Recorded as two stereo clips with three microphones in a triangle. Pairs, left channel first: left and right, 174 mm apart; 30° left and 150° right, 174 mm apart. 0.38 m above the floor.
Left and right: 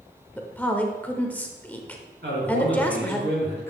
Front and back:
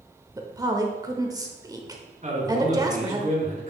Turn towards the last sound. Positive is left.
turn(degrees=-100)